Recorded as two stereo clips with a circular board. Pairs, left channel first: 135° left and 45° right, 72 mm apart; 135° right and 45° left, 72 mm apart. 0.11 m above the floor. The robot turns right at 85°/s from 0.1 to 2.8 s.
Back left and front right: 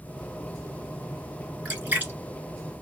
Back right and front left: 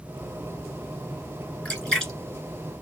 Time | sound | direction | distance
1.6 | a splash | 90° right | 1.5 m